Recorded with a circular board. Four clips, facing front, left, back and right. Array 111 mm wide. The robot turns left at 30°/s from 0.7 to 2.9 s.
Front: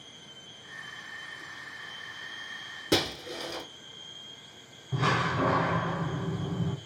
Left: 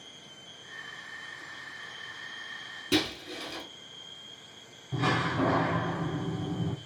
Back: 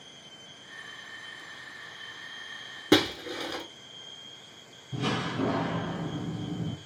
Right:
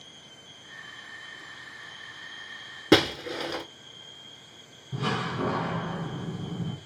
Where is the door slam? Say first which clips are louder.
Left 2 dB, front 3 dB; 30° left, 1.8 m.